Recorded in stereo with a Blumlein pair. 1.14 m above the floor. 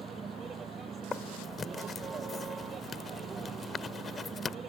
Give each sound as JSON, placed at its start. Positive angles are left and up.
{"t": 0.0, "sound": "a vehicle", "azimuth_deg": -20}
{"t": 1.1, "sound": "writing", "azimuth_deg": 15}